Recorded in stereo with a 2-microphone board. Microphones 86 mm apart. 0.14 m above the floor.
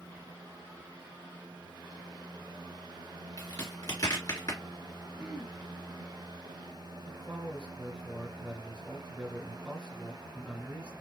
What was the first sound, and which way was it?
A crack, 50° left (ahead or behind).